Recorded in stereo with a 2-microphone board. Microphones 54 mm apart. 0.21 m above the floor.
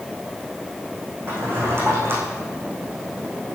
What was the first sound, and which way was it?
A drawer, 45° right (ahead or behind).